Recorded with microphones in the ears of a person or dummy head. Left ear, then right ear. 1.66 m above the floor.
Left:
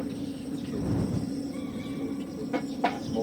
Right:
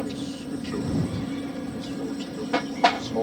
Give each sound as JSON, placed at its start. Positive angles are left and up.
{"t": 0.0, "sound": "an aircraft", "side_deg": -45}